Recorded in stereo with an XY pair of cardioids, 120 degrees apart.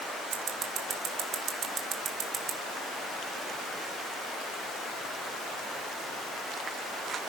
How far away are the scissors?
About 1.7 m.